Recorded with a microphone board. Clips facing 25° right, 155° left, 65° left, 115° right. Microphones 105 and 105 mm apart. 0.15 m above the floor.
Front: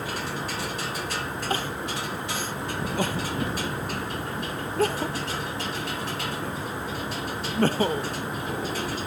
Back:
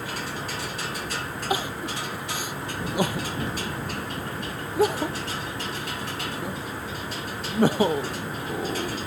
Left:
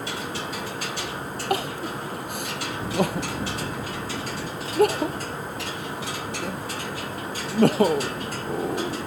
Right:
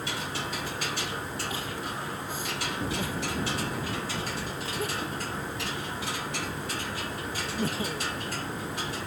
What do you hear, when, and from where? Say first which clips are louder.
1.5 s crying: back 3 dB, left 8 dB; 80° left